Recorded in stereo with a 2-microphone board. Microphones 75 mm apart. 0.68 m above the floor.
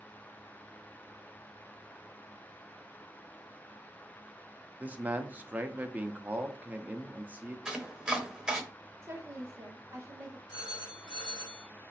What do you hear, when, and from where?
4.8 s a man speaking: 20° right (ahead or behind), 0.6 m
7.7 s chopping: 10° right (ahead or behind), 0.8 m
9.0 s a woman speaking: 35° right (ahead or behind), 1.0 m
10.5 s a phone ringing: 60° left (ahead or behind), 1.9 m